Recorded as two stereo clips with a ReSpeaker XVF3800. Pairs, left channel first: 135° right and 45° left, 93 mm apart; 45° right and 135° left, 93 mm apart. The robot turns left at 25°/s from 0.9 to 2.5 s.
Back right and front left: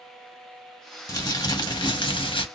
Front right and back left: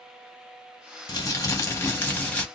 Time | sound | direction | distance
1.1 | crumpling | 90° right | 0.9 m